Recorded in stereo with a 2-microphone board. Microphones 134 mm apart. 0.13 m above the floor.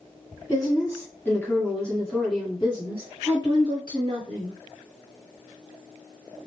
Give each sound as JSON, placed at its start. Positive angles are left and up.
{"t": 0.5, "sound": "a woman speaking", "side_deg": 30, "distance_m": 1.9}